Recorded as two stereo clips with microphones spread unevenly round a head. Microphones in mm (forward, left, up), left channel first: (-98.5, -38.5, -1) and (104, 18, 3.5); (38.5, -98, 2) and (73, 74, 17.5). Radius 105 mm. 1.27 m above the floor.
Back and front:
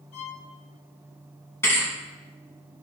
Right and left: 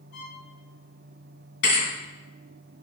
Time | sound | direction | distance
0.1 | a violin | 140° right | 3 m
1.6 | a thud | 85° right | 3.5 m